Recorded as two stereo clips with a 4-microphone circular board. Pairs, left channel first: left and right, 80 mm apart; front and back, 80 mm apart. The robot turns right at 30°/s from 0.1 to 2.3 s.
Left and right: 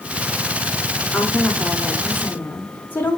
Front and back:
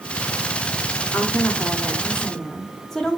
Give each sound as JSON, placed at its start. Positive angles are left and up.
{"t": 1.1, "sound": "a woman speaking", "azimuth_deg": 40, "distance_m": 0.8}